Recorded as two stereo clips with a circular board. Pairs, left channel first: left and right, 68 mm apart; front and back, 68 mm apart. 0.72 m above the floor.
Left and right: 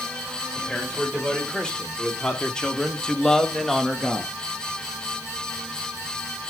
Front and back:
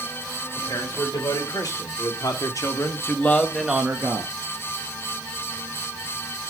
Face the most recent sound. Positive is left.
turn(degrees=-175)